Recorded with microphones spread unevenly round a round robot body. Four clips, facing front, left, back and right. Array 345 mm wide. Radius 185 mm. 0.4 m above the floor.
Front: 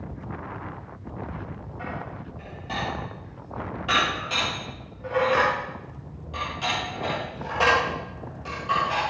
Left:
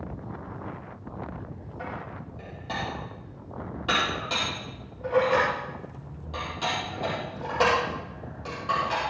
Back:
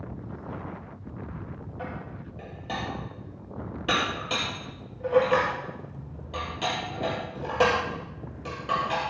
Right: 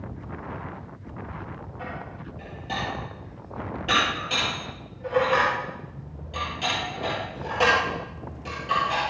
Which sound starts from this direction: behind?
Dishes clattering, at 1.8 s.